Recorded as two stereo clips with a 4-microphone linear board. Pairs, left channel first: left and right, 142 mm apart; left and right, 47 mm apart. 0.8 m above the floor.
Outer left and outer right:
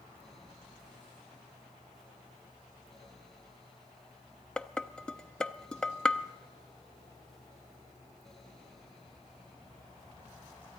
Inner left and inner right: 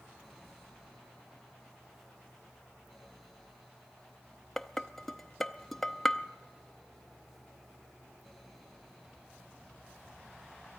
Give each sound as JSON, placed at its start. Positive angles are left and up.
{"t": 4.6, "sound": "dishes clattering", "side_deg": 5, "distance_m": 0.5}